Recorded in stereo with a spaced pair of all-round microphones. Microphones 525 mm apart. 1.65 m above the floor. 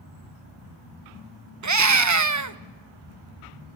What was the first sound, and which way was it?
A scream, 35° right (ahead or behind).